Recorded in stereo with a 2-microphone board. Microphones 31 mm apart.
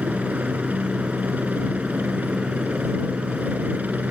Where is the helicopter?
70° right (ahead or behind).